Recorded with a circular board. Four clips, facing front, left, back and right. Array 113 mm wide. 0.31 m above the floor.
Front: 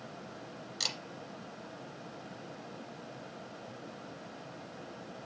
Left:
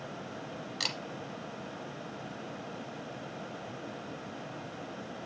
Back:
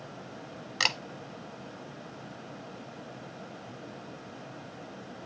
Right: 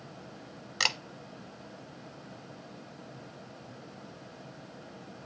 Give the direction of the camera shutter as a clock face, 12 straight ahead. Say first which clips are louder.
Right 8 dB, back 12 dB; 5 o'clock.